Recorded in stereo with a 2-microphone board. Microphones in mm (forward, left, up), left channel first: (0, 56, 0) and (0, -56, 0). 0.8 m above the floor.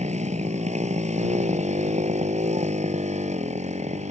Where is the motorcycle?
90° right.